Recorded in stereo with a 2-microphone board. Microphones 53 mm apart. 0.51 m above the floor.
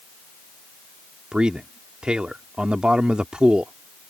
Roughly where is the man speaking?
Centre.